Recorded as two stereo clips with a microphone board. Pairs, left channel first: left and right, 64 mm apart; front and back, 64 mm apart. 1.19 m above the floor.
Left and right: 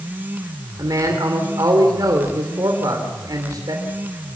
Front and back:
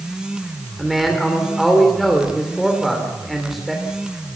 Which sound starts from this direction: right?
A man speaking, at 0.8 s.